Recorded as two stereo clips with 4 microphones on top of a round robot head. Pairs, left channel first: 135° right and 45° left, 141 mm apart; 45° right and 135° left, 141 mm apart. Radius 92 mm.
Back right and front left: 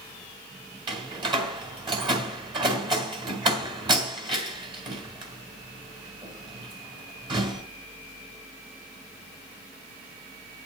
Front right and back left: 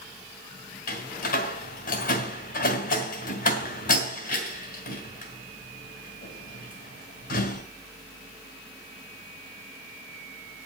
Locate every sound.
0.9 s a door slam: 15° right, 3 m